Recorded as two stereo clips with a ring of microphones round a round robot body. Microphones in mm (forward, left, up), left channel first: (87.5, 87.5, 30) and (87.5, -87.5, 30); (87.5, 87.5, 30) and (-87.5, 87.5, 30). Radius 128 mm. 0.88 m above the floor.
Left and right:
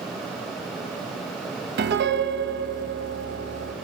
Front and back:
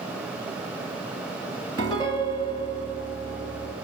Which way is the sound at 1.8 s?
75° right.